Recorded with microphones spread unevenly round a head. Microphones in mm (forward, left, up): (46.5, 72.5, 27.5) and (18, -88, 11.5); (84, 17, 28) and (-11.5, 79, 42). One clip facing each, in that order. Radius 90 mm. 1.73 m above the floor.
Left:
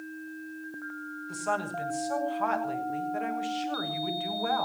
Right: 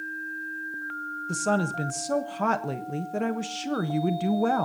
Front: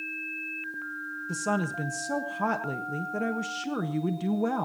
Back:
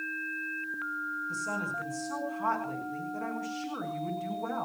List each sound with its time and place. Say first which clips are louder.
1.3 s a woman speaking: right 6 dB, front 9 dB; 60° right, 1.3 m